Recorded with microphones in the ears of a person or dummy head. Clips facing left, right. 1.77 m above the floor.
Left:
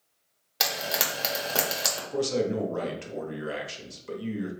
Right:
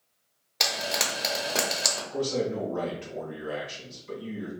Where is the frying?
5° left (ahead or behind), 0.9 m.